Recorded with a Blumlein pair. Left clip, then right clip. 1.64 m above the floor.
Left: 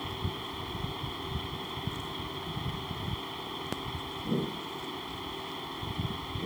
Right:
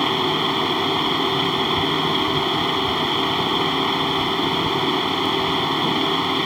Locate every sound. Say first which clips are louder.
0.0 s a fan: right 18 dB; 50° right